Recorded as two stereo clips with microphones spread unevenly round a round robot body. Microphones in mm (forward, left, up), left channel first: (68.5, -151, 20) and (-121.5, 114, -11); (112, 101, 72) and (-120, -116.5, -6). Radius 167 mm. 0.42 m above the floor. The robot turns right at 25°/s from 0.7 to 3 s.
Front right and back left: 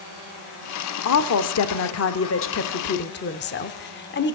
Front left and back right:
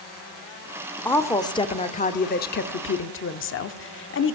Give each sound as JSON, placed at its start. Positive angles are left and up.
{"t": 1.1, "sound": "a woman speaking", "azimuth_deg": -55, "distance_m": 0.9}